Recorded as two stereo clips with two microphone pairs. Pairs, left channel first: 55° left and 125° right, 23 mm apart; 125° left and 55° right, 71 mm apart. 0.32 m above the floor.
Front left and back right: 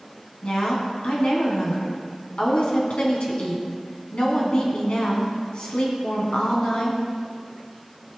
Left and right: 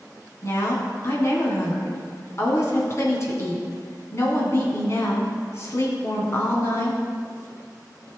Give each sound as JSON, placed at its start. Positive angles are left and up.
{"t": 0.4, "sound": "a woman speaking", "azimuth_deg": 80, "distance_m": 2.5}